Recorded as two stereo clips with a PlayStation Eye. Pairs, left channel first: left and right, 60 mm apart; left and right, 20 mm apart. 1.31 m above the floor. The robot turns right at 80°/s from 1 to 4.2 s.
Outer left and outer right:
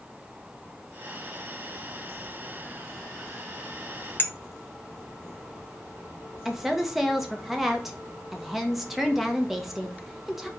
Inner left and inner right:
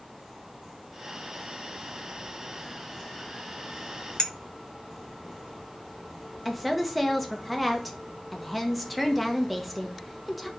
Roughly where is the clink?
Left.